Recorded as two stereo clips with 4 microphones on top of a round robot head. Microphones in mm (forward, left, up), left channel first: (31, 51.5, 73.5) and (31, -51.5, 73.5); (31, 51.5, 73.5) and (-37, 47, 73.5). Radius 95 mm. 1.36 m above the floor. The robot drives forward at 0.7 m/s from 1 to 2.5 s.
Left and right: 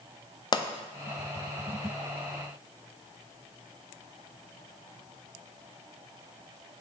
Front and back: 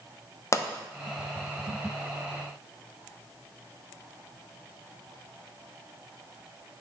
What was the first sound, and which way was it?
A pop, 45° left.